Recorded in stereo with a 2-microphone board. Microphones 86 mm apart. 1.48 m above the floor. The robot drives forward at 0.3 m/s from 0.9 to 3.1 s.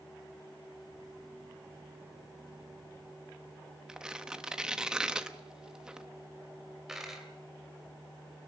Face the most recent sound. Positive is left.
turn(degrees=-5)  # may be behind; listen again after turning